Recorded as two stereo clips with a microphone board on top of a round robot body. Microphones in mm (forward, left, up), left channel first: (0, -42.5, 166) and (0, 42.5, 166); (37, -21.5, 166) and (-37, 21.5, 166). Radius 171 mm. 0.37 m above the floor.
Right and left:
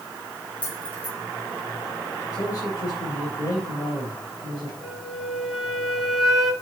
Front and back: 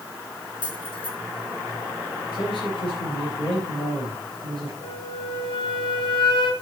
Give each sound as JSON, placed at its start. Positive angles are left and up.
{"t": 0.6, "sound": "keys jangling", "azimuth_deg": -20, "distance_m": 4.5}
{"t": 2.3, "sound": "a man speaking", "azimuth_deg": -45, "distance_m": 4.5}
{"t": 4.8, "sound": "a flute", "azimuth_deg": 0, "distance_m": 3.0}